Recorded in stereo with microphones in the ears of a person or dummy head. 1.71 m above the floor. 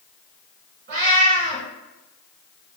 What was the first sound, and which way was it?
A cat meowing, 25° right (ahead or behind).